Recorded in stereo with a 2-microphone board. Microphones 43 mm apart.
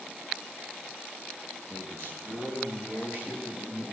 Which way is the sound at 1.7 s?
65° left (ahead or behind).